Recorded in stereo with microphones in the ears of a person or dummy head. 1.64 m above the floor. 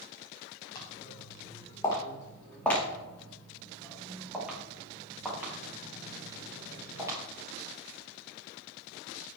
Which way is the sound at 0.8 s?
25° left (ahead or behind).